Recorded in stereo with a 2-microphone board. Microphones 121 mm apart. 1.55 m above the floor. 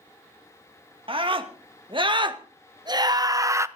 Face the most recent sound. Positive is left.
turn(degrees=-25)  # may be behind; listen again after turning